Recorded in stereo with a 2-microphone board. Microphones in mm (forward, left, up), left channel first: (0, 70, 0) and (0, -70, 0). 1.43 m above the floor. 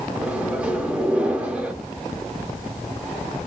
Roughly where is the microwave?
Centre.